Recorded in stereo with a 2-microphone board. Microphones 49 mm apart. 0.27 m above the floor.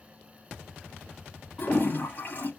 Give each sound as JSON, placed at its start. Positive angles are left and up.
{"t": 1.6, "sound": "a toilet flushing", "side_deg": 50, "distance_m": 2.5}